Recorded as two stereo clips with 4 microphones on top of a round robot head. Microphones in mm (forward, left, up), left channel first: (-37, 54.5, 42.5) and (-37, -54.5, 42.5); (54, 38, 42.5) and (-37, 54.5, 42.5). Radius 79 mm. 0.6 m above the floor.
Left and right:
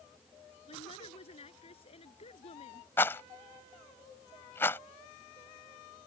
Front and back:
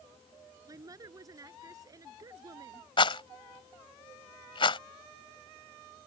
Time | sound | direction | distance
0.7 | a woman speaking | 120° left | ?
3.0 | a rattle | 15° left | ?